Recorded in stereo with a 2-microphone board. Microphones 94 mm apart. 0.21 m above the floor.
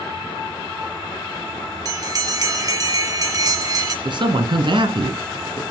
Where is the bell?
40° right (ahead or behind), 1.5 m.